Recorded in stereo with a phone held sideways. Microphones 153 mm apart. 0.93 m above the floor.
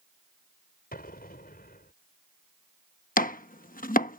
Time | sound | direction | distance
0.9 | an explosion | 80° left | ?
3.2 | chopping | 65° left (ahead or behind) | ?